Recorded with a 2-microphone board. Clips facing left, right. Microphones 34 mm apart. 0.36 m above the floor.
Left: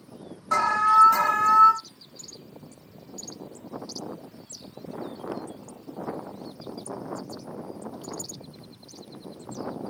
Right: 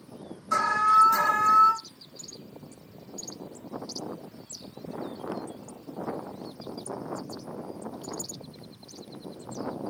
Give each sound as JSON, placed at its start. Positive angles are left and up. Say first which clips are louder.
{"t": 0.5, "sound": "an alarm", "louder": "left 2 dB", "side_deg": 55, "distance_m": 2.0}